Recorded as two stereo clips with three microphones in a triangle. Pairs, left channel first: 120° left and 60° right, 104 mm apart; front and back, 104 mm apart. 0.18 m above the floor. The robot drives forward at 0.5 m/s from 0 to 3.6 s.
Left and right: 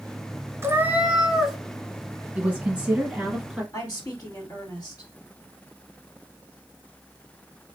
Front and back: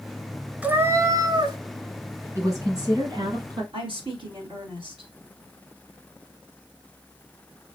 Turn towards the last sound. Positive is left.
turn(degrees=170)